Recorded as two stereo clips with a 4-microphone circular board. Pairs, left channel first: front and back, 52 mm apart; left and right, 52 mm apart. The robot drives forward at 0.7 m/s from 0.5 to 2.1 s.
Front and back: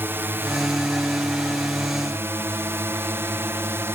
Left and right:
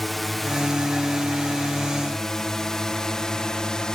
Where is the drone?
175° left; by 3.9 s 160° left.